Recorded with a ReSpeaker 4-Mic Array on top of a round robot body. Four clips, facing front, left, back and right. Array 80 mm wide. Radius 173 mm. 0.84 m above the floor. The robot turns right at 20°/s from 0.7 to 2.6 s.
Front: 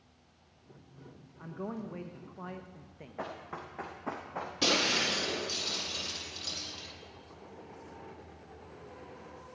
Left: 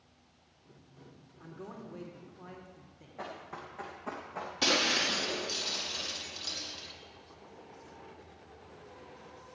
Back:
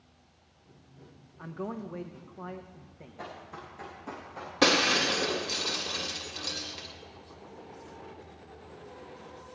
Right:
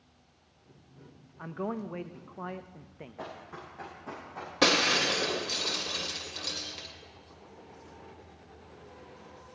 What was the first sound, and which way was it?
A man speaking, 105° right.